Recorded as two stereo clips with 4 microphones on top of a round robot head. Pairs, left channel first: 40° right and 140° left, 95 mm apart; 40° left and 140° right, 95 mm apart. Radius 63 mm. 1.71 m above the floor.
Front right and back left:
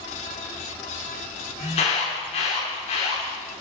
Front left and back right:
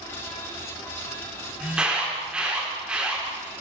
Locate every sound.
1.6 s an alarm: 60° right, 7 m